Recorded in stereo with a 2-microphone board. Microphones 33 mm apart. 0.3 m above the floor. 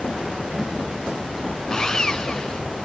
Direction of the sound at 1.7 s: 15° left (ahead or behind).